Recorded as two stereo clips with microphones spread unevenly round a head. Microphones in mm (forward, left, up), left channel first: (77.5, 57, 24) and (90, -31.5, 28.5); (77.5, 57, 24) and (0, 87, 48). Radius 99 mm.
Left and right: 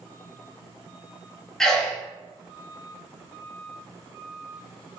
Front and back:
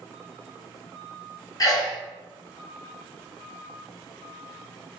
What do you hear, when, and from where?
1.6 s a sneeze: 15° left, 1.1 m